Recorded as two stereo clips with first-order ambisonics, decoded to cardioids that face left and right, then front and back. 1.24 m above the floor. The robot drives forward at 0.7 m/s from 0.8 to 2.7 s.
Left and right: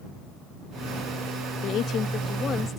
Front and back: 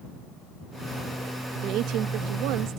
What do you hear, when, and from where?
1.6 s a woman speaking: 135° left; by 2.8 s 155° left